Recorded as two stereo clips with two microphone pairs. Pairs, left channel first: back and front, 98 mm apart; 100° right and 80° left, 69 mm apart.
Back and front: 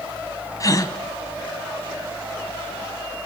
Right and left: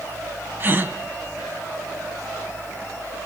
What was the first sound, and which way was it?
A gasp, 135° left.